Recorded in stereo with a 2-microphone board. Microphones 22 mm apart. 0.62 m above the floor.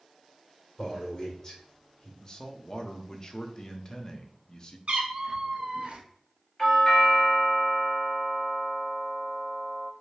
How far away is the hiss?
No hiss in this recording.